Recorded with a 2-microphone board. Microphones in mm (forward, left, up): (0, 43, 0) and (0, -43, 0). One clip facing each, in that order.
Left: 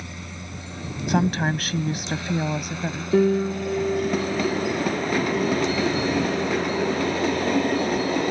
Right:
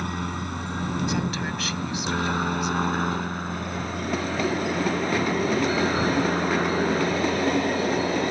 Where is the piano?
65° left (ahead or behind).